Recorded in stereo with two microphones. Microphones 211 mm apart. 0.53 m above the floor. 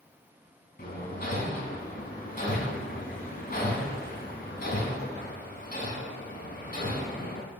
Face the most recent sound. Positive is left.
turn(degrees=45)  # may be behind; listen again after turning